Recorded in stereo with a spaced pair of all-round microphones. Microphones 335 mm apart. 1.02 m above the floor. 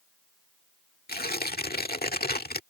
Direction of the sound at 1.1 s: 30° left (ahead or behind).